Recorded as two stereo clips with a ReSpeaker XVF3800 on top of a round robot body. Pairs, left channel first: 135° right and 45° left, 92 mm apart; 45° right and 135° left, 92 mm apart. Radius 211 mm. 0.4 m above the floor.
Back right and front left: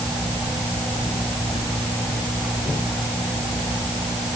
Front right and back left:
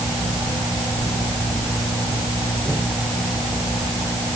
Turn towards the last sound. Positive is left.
No sound to turn to.